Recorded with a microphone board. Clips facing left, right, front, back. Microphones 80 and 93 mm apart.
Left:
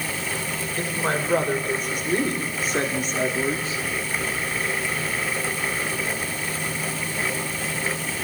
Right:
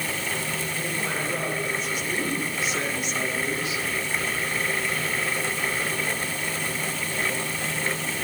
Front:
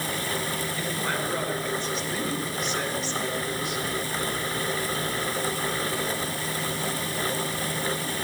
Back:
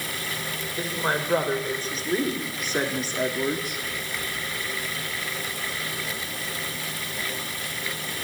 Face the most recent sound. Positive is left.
turn(degrees=145)